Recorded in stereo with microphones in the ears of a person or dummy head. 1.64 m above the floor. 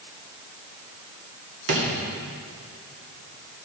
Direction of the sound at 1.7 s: 70° right (ahead or behind).